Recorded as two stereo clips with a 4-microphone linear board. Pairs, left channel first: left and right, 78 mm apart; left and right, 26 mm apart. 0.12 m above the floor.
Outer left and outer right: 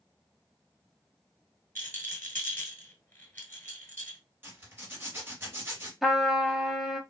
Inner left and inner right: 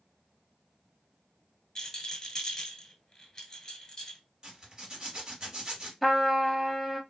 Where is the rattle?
25° left (ahead or behind), 1.0 m.